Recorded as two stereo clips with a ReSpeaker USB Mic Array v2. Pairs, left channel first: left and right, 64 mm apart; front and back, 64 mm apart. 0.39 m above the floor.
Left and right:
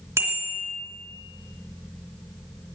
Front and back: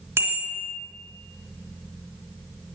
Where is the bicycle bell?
130° right, 3 m.